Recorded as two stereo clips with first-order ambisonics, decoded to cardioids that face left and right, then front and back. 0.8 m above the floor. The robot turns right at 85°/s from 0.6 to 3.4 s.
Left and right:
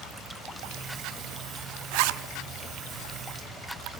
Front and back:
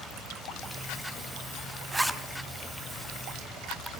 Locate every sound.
1.9 s a zipper: 105° right, 0.7 m; by 2.2 s 75° right, 0.7 m